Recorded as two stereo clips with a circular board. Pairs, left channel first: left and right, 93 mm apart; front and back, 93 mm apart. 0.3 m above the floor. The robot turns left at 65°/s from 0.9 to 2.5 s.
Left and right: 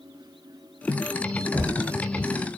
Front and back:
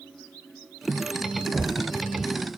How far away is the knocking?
About 0.7 m.